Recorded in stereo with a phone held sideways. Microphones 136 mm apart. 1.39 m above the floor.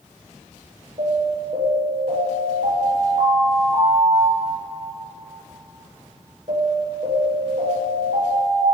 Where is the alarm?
55° right (ahead or behind), 8.5 m.